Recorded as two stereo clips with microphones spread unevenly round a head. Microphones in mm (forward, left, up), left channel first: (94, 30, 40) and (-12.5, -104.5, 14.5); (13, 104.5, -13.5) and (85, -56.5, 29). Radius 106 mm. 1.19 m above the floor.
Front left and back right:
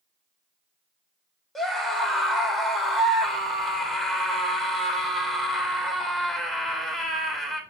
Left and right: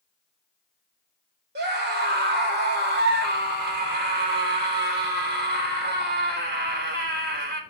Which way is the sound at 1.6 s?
40° right.